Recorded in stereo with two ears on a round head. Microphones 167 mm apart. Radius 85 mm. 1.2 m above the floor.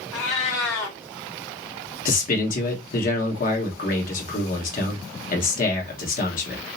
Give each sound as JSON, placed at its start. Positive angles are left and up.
{"t": 0.1, "sound": "a cat meowing", "side_deg": 15, "distance_m": 1.6}
{"t": 2.0, "sound": "a man speaking", "side_deg": 45, "distance_m": 1.3}